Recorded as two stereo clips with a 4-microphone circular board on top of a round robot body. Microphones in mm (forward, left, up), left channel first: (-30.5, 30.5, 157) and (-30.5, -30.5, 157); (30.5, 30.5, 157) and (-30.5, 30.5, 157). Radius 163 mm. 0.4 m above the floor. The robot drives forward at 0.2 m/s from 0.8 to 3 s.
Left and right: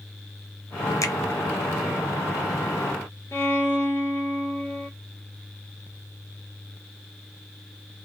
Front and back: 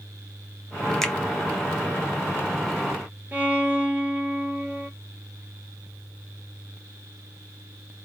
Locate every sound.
1.0 s a finger snap: 85° left, 1.0 m
3.3 s a violin: 130° left, 2 m